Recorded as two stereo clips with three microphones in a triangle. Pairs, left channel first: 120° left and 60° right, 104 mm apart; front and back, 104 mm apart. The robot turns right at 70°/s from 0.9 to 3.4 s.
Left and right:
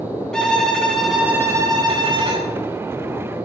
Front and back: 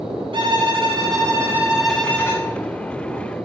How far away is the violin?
About 3 m.